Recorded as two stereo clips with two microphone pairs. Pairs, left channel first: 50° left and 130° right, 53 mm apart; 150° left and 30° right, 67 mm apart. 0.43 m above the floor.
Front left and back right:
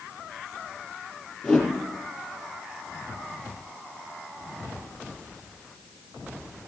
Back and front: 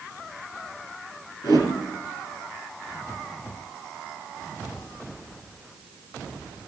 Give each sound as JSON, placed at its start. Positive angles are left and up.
{"t": 1.4, "sound": "a whoosh", "azimuth_deg": 125, "distance_m": 4.5}